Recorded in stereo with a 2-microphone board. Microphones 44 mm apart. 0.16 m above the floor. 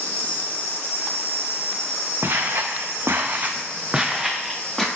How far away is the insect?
About 1.1 m.